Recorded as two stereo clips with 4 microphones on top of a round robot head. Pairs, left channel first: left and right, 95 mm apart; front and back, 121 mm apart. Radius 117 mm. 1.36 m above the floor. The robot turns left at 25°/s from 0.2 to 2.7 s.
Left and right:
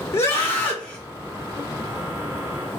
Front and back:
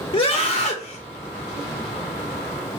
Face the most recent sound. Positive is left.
turn(degrees=-30)